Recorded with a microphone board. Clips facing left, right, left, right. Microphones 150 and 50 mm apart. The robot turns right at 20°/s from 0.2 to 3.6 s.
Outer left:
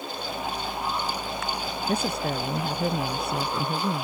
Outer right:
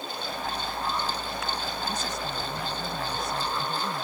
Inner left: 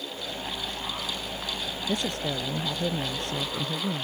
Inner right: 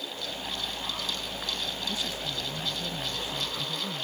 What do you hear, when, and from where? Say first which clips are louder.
1.9 s a woman speaking: outer left 6 dB, inner left 5 dB; 70° left; by 4.0 s 105° left